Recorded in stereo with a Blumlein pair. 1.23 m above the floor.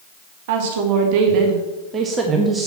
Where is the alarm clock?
I don't hear an alarm clock.